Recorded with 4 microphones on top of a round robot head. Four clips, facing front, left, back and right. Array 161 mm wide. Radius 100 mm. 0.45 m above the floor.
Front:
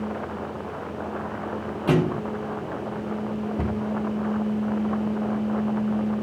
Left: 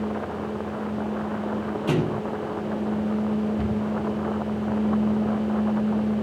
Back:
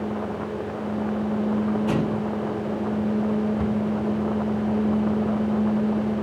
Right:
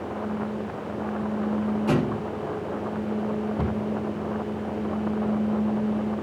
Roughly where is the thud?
Ahead.